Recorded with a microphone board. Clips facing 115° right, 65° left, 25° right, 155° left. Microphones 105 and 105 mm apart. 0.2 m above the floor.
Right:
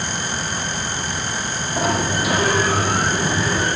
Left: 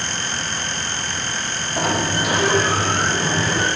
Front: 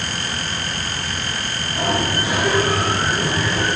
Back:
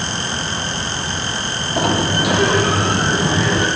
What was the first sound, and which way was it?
A sliding door, 160° left.